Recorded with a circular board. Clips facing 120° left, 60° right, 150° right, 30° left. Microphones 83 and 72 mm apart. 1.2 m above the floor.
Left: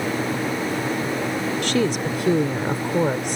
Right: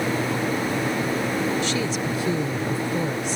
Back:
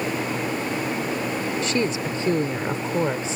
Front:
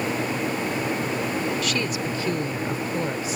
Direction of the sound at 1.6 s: 150° left.